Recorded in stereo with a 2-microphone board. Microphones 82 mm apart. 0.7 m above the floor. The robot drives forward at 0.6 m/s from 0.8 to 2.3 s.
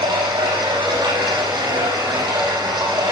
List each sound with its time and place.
0.0 s running water: 80° right, 5.5 m; by 3.1 s 85° right, 5 m